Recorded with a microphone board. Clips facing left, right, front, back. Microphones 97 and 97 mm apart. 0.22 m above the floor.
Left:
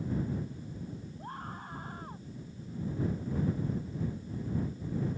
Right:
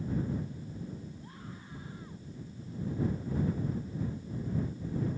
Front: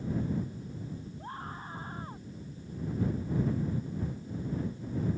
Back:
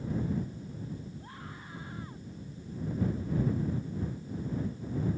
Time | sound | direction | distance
1.2 | a scream | 50° left | ?